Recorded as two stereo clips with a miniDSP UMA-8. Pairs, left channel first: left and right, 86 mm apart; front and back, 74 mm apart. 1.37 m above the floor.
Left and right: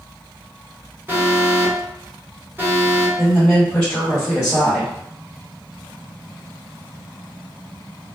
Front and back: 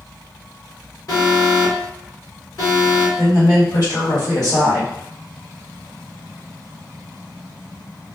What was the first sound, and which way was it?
An alarm, 25° right.